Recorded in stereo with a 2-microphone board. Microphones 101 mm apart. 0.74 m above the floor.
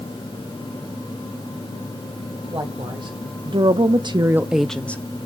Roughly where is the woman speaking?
Right.